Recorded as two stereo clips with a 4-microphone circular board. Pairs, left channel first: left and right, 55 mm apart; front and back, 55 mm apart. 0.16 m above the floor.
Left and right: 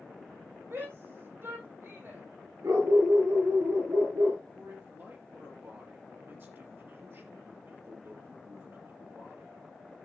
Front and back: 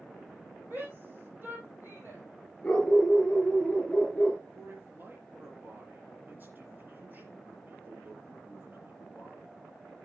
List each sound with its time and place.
0.7 s a shout: 125° right, 7.5 m; by 2.2 s 135° right, 7 m
2.6 s a dog barking: 75° right, 5 m
4.5 s a man speaking: 130° right, 3.5 m